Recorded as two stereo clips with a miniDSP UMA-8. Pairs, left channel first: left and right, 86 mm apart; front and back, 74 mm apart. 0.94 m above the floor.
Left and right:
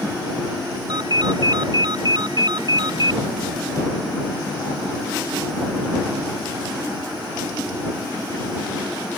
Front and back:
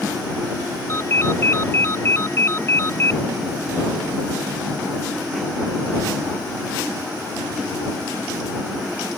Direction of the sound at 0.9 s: 55° right.